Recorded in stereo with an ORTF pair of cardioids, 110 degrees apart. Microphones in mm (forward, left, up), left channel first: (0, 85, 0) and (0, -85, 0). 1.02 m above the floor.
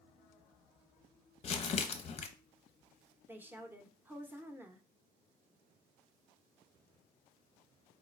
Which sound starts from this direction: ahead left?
Crumpling, at 1.4 s.